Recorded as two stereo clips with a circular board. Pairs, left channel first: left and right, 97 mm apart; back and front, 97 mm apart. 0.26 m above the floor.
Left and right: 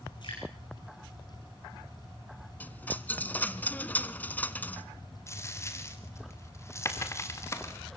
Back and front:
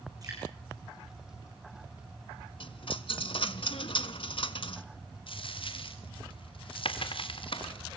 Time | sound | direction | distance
0.2 | dripping | 50° left | 8.5 m
2.6 | a dropped coin | 165° left | 0.9 m
5.3 | a dropped coin | 155° left | 2.5 m